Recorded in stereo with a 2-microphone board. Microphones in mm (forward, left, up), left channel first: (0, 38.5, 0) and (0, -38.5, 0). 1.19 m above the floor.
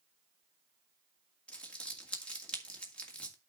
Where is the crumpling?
15° left (ahead or behind), 2 m.